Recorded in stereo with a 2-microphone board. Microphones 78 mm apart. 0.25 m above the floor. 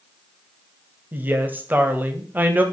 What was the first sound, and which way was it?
A woman speaking, 25° right (ahead or behind).